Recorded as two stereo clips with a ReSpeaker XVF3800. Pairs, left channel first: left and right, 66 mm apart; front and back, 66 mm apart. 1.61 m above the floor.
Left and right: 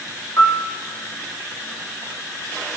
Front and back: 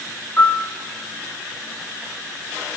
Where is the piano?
50° left, 1.9 m.